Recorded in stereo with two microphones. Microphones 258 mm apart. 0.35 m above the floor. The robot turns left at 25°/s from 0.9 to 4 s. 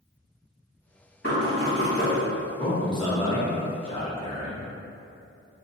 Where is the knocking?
45° left (ahead or behind), 2.0 m; by 2.2 s 25° left (ahead or behind), 2.0 m.